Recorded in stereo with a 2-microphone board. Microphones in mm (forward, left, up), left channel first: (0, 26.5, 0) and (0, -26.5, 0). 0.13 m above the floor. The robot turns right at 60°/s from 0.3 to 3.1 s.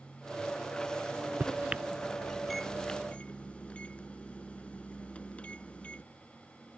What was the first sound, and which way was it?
A microwave, 35° right (ahead or behind).